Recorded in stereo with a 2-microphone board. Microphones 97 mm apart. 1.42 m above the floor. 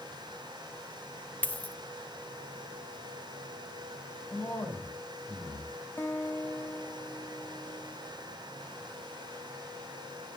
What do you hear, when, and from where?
1.4 s a dropped coin: 20° left (ahead or behind), 1.2 m
4.3 s a man speaking: 20° left (ahead or behind), 7.5 m
6.0 s a guitar: 20° left (ahead or behind), 2.0 m